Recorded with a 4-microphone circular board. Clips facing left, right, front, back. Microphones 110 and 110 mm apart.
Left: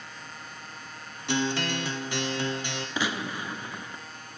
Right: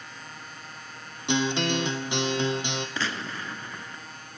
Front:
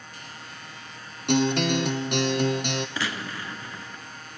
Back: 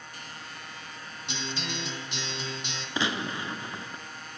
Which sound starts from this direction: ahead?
A guitar, at 1.3 s.